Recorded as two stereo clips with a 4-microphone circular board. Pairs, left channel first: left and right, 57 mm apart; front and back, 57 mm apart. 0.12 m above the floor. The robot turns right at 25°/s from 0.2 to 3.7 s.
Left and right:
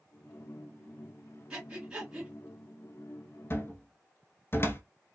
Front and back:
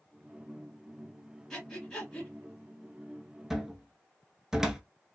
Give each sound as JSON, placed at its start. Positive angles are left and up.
{"t": 1.5, "sound": "breathing", "azimuth_deg": -50, "distance_m": 1.7}
{"t": 3.5, "sound": "a cupboard door", "azimuth_deg": 100, "distance_m": 0.6}